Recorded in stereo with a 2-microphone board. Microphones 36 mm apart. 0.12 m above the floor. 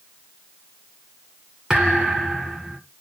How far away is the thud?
About 2 m.